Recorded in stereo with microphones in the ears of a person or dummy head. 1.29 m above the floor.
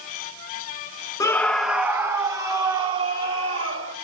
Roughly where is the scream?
Centre.